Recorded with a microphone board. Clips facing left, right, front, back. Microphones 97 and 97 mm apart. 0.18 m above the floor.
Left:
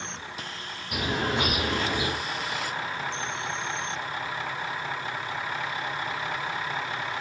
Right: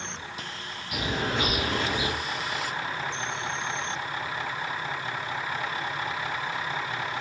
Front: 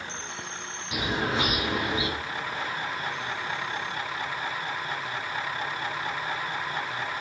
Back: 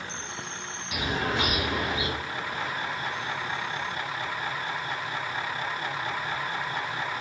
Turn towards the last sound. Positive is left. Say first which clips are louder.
# left 1 dB, front 1 dB
turn(degrees=60)